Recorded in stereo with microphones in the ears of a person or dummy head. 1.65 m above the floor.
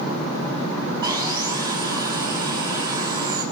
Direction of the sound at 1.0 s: 20° right (ahead or behind).